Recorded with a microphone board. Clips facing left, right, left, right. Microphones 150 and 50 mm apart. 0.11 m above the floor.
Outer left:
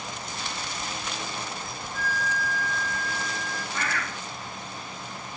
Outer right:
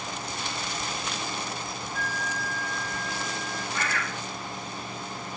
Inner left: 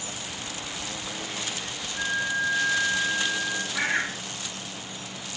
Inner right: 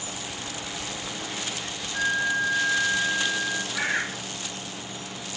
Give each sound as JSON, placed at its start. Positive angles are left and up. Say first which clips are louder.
{"t": 1.9, "sound": "a flute", "louder": "outer left 4 dB, inner right 3 dB", "side_deg": -40, "distance_m": 4.5}
{"t": 3.7, "sound": "a bird", "louder": "even, inner left 2 dB", "side_deg": -5, "distance_m": 1.9}